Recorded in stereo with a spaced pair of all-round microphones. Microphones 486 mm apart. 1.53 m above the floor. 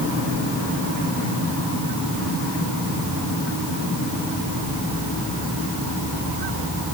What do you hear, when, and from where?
Only background noise.